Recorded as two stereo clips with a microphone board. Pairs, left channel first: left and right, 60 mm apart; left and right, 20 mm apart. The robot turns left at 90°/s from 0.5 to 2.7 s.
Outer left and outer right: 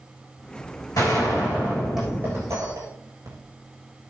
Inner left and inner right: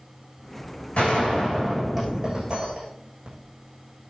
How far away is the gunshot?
About 7 m.